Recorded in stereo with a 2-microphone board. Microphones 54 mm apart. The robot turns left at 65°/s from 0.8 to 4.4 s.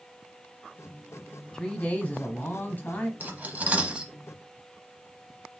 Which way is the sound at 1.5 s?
155° left.